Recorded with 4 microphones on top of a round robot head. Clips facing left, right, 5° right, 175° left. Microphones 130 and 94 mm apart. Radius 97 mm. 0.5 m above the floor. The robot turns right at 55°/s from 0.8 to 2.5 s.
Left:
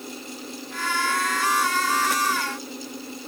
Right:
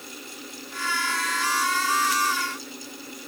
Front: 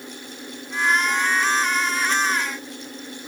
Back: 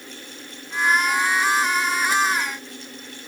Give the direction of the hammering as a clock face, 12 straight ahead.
No hammering in this recording.